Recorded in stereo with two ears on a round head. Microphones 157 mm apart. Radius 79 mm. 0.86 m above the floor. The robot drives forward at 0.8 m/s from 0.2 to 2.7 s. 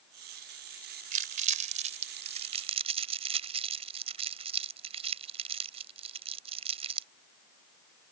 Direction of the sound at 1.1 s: 50° right (ahead or behind).